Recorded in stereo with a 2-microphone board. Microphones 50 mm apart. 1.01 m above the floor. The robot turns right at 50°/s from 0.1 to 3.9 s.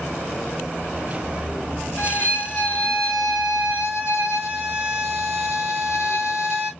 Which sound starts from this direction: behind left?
A violin, at 2.0 s.